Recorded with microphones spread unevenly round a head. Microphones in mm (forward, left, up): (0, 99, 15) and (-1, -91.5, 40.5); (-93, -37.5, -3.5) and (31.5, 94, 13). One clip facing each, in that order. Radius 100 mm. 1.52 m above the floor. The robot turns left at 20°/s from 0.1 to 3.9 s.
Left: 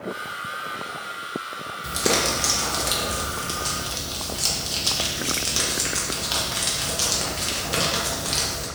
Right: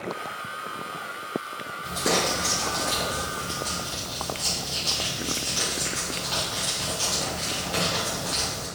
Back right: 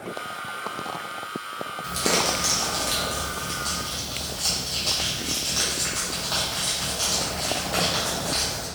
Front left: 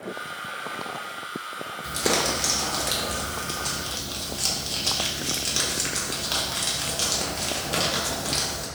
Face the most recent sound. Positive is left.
turn(degrees=80)